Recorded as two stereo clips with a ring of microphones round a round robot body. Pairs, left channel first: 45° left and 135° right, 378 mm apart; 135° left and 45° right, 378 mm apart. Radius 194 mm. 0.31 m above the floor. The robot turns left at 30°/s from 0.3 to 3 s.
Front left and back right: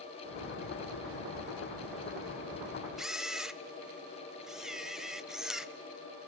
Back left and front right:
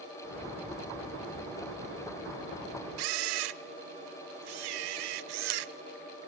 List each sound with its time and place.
3.0 s a camera shutter: 45° right, 0.7 m